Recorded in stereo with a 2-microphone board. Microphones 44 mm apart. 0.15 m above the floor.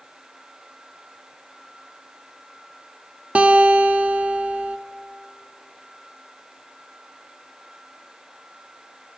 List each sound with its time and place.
3.4 s a guitar: 30° right (ahead or behind), 0.6 m